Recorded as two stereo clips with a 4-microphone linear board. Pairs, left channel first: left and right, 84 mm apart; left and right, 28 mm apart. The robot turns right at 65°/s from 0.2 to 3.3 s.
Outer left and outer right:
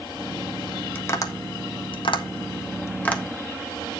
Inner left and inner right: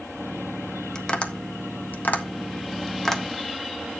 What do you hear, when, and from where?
0.9 s tapping: 20° left (ahead or behind), 1.3 m; by 3.2 s 10° left (ahead or behind), 1.3 m